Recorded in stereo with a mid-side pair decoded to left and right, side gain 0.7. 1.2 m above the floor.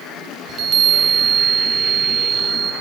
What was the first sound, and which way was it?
A chime, 40° right.